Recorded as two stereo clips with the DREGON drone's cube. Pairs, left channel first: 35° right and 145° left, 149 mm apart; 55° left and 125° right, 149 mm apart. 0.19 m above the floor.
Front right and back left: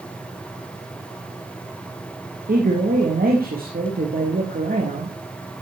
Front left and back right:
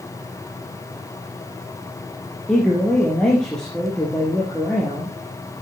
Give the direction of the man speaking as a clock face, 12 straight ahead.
7 o'clock.